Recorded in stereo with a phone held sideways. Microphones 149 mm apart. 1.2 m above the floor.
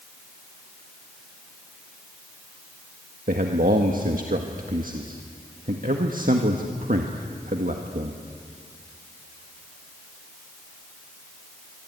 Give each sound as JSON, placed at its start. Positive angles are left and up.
{"t": 3.3, "sound": "a man speaking", "side_deg": -70, "distance_m": 1.7}